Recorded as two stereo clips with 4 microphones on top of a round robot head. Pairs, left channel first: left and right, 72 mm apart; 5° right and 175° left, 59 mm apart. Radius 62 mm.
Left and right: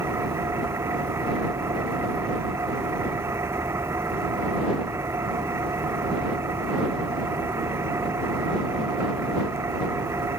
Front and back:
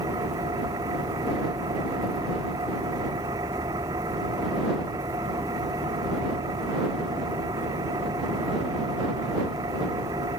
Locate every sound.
0.0 s an engine running: 145° right